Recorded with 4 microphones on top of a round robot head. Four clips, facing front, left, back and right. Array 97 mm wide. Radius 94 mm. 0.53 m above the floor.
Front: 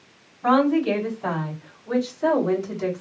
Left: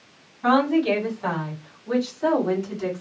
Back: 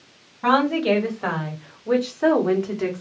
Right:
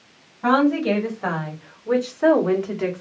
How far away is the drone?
No drone in this recording.